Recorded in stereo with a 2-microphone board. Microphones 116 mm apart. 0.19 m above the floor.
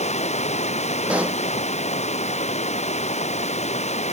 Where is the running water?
80° left.